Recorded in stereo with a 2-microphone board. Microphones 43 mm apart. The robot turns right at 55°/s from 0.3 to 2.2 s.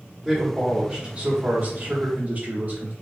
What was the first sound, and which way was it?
A man speaking, 170° right.